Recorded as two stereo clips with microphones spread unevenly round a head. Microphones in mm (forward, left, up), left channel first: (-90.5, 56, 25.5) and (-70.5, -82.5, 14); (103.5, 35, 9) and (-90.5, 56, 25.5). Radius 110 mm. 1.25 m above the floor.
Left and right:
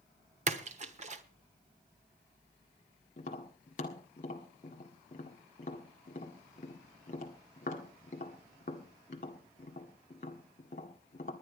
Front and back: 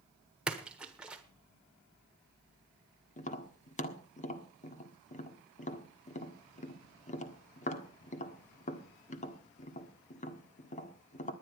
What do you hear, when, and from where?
0.5 s a splash: 105° right, 1.2 m
3.2 s tapping: 50° left, 1.5 m